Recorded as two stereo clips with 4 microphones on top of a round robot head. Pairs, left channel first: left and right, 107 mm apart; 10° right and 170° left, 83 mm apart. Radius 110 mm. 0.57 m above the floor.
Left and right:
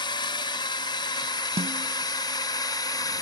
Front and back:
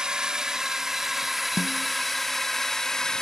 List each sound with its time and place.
0.0 s a drone: 95° left; by 3.2 s 70° left
1.6 s a snare drum: 65° right